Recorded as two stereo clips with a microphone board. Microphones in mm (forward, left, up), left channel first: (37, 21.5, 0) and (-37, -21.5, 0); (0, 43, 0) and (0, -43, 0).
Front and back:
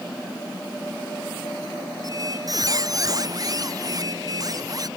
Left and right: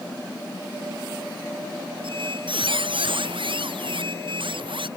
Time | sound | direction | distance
2.0 | a squeak | 105° right | ?